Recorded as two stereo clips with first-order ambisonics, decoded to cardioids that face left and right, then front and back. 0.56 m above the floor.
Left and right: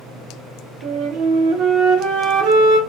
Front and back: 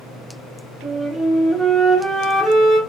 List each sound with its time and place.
0.8 s a flute: 100° right, 0.7 m